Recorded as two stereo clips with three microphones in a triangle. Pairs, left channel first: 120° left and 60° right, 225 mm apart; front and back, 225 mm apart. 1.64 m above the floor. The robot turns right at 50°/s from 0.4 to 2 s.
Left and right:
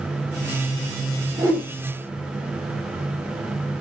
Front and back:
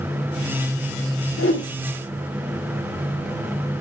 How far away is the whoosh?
About 1.9 m.